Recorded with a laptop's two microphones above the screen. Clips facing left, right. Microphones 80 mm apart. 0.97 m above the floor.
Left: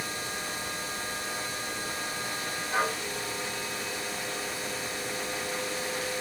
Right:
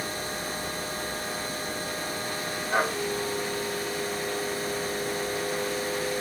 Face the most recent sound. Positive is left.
turn(degrees=-45)  # may be behind; listen again after turning